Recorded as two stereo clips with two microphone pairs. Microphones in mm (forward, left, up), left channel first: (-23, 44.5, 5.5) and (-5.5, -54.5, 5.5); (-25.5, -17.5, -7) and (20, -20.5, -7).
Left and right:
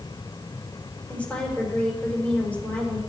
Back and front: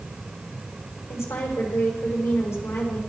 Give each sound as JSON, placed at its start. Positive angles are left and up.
{"t": 1.1, "sound": "a woman speaking", "azimuth_deg": 175, "distance_m": 5.5}